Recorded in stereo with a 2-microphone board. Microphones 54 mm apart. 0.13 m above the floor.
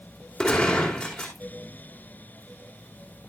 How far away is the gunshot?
About 4 m.